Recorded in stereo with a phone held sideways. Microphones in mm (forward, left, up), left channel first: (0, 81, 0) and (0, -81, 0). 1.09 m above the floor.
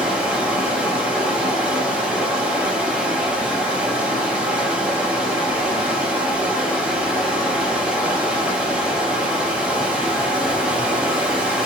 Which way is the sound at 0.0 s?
5° right (ahead or behind).